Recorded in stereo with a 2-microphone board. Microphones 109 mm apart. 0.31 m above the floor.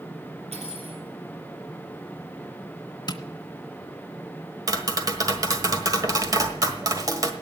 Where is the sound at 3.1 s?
40° left (ahead or behind), 0.9 m.